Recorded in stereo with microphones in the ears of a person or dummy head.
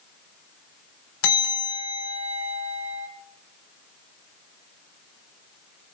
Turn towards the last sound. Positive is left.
turn(degrees=80)